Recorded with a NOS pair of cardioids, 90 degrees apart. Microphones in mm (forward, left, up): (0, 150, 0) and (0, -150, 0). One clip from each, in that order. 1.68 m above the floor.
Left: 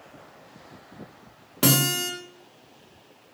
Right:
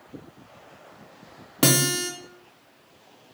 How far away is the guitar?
About 0.6 m.